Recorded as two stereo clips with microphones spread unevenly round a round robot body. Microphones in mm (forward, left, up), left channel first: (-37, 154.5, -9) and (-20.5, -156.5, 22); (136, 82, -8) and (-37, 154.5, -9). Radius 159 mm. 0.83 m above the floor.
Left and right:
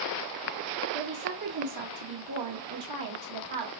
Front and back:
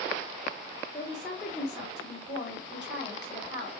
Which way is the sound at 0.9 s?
115° right.